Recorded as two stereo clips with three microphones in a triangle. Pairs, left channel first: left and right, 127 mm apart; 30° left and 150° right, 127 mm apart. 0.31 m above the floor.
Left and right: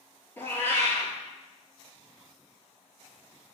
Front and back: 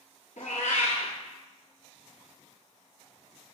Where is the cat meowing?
20° left, 0.8 m.